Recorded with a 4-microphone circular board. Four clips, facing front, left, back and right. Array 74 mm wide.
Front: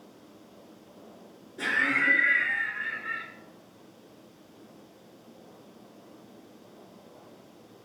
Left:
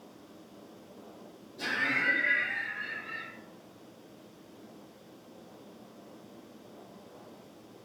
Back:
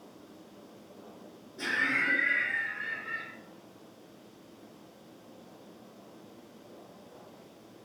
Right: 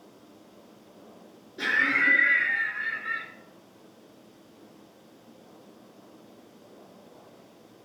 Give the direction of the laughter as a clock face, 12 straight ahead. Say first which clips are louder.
Right 6 dB, front 4 dB; 2 o'clock.